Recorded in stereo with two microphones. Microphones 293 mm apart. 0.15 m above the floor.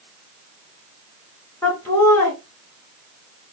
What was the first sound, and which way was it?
Laughter, 10° left (ahead or behind).